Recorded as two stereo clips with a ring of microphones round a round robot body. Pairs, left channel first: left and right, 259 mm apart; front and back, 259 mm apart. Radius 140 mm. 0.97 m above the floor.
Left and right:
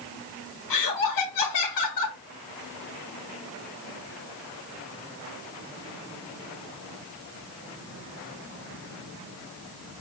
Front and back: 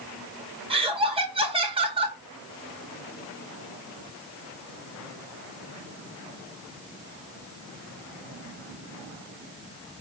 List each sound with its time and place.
0.7 s laughter: 110° left, 1.5 m